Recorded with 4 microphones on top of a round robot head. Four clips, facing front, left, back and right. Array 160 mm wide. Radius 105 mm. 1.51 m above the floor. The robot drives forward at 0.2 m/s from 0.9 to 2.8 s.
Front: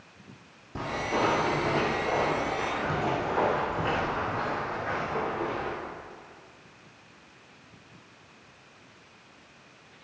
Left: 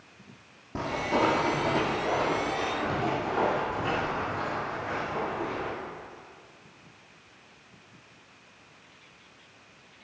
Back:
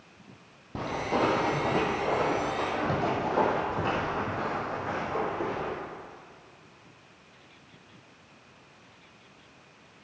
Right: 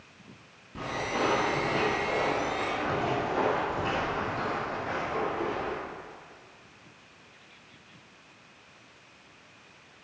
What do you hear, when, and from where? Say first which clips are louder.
0.8 s footsteps: left 4 dB, back 1 dB; 135° left, 2.5 m; by 5.7 s 155° right, 4.5 m